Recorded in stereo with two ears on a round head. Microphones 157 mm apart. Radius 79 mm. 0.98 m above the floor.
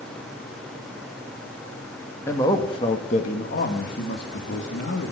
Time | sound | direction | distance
2.3 | a man speaking | 15° left (ahead or behind) | 1.6 m